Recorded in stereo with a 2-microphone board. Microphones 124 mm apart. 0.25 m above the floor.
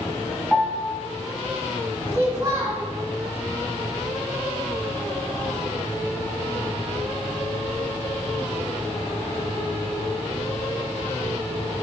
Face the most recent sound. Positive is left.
turn(degrees=-25)  # may be behind; listen again after turning